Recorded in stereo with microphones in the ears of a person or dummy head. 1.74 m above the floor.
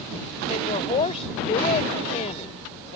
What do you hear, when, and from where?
0.5 s a woman speaking: 40° left (ahead or behind)